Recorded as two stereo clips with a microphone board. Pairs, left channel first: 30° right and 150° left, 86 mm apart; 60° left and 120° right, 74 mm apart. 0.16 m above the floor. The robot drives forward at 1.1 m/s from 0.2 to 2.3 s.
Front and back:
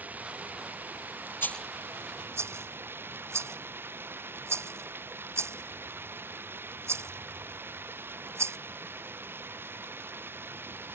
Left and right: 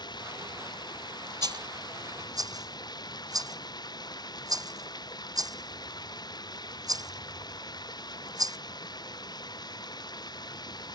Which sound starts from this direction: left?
Running water, at 0.0 s.